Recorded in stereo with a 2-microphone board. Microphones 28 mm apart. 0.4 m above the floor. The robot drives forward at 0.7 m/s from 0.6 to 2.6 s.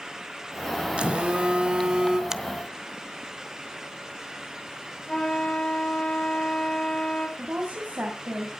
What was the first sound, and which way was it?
A phone buzzing, 45° right (ahead or behind).